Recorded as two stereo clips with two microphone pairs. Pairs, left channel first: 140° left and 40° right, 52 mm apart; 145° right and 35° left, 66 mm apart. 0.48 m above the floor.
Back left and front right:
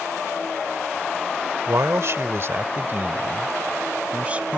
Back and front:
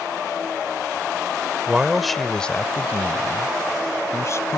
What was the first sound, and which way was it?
A man speaking, 45° right.